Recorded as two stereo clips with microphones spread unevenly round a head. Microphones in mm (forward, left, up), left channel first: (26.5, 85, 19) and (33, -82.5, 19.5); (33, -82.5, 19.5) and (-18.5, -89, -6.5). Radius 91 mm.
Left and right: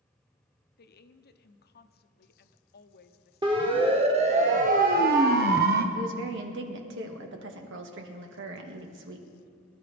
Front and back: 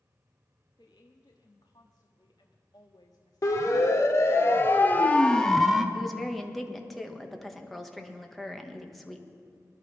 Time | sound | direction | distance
0.8 | a woman speaking | 65° left | 0.8 m
3.4 | a siren | 25° right | 2 m
6.0 | a woman speaking | 80° right | 1.7 m